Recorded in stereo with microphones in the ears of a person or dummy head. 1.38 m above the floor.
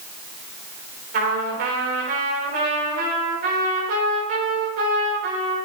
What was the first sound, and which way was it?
A trumpet, 75° right (ahead or behind).